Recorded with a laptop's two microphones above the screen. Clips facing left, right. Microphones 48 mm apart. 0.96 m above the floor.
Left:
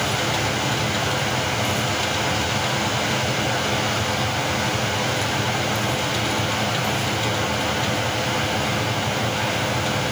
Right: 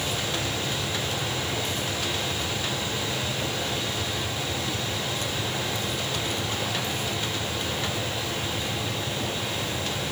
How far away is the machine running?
About 4.5 m.